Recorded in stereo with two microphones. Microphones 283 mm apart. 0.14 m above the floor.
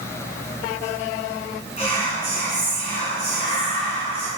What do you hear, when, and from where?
1.8 s whispering: 25° left (ahead or behind), 1.2 m